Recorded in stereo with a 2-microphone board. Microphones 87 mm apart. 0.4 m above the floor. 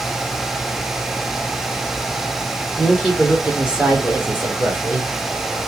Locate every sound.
2.8 s a woman speaking: 10° left (ahead or behind), 1.3 m; by 5.2 s 30° right (ahead or behind), 1.9 m